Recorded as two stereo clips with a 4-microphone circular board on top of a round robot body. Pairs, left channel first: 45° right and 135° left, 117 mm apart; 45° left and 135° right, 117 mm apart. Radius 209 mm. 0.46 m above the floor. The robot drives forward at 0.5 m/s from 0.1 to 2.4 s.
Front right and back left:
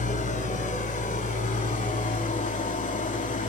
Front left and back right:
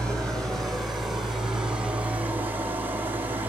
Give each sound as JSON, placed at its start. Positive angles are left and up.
{"t": 0.0, "sound": "an engine running", "azimuth_deg": -40, "distance_m": 3.0}